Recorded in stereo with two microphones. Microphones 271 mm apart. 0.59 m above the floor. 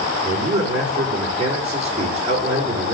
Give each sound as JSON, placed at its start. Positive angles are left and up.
{"t": 0.2, "sound": "a man speaking", "side_deg": -25, "distance_m": 7.0}